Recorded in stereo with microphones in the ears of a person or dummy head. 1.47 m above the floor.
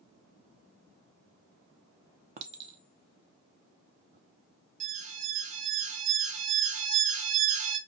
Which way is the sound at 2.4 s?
35° right (ahead or behind).